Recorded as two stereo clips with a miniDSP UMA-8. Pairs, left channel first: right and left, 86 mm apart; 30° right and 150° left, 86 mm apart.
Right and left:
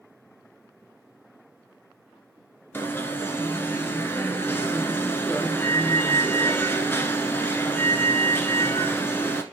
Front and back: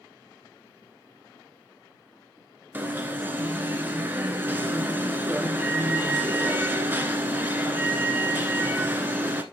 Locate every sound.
2.7 s an alarm: 145° right, 1.1 m